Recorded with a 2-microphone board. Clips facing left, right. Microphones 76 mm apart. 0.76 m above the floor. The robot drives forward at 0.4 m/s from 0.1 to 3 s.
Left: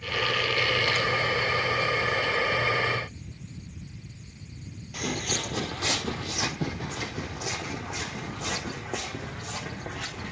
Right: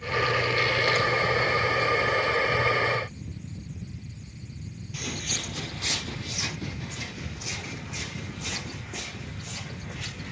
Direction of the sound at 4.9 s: 55° left (ahead or behind).